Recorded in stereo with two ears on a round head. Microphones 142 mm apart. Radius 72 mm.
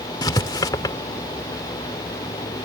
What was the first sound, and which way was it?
Writing, 25° left (ahead or behind).